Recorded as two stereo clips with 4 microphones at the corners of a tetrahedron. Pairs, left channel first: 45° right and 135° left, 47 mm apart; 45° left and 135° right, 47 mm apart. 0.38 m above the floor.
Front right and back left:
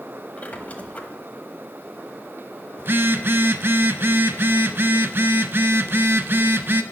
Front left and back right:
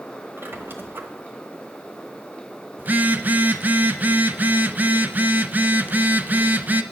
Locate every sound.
0.4 s a squeak: 100° right, 1.1 m
2.8 s a phone buzzing: 170° left, 0.5 m